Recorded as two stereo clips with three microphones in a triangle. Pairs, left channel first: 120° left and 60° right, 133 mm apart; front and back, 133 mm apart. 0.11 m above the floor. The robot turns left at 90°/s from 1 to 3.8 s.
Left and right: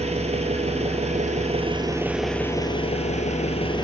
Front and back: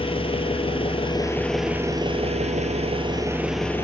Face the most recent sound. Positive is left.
turn(degrees=70)